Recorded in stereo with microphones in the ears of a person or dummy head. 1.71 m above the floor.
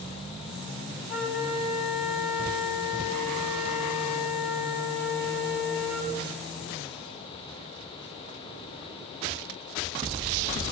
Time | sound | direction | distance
1.1 | a flute | centre (ahead or behind) | 5 m